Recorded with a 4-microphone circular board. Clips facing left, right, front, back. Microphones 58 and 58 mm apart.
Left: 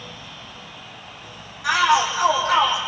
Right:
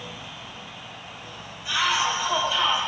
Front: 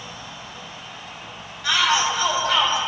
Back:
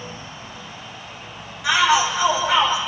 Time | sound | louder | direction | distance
1.6 | a shout | left 6 dB, back 3 dB | 100° left | 8.5 m